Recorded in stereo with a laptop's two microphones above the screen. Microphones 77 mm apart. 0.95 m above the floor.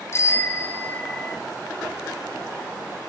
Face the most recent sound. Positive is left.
turn(degrees=10)  # may be behind; listen again after turning